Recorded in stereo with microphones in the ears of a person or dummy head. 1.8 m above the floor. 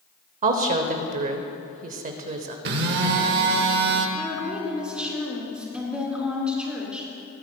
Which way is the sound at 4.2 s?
5° left (ahead or behind).